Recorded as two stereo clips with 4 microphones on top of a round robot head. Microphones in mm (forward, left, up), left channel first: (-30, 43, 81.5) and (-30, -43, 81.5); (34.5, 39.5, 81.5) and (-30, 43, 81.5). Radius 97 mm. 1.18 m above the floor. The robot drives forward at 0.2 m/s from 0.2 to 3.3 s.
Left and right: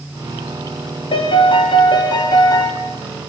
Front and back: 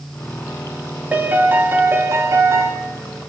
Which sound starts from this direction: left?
A piano, at 1.1 s.